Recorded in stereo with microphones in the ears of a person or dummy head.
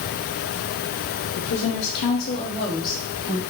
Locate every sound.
1.4 s a woman speaking: 50° left (ahead or behind), 0.7 m; by 3.4 s 15° left (ahead or behind), 1.8 m